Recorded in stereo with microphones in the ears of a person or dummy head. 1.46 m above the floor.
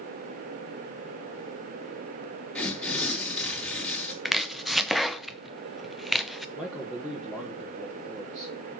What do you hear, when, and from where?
2.5 s tearing paper: 10° left (ahead or behind), 4 m
4.2 s chopping: 5° right (ahead or behind), 0.7 m
6.5 s a man speaking: 5° left (ahead or behind), 1.4 m